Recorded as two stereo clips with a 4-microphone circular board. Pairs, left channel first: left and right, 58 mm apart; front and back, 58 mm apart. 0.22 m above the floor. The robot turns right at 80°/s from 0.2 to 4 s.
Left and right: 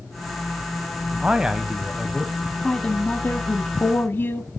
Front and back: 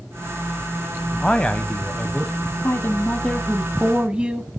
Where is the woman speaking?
10° left, 1.4 m; by 4.5 s 120° left, 1.4 m.